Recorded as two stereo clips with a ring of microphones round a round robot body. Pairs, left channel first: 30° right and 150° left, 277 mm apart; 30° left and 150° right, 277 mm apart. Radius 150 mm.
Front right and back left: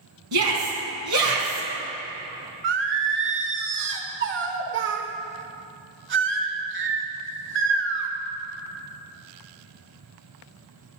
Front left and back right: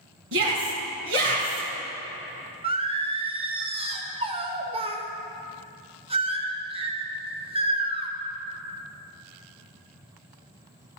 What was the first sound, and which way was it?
A shout, 165° left.